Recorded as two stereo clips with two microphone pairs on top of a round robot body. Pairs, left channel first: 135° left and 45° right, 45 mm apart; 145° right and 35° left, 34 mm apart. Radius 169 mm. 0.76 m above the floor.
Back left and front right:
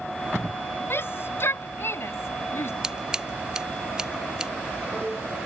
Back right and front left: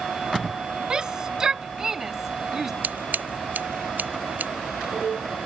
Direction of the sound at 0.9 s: 100° left.